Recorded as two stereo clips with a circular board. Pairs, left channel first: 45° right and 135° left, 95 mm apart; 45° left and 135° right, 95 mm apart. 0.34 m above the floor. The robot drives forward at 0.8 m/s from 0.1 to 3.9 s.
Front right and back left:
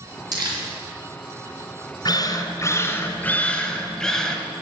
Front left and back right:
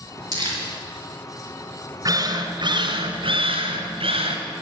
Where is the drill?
85° right, 1.7 m; by 4.4 s 130° right, 2 m.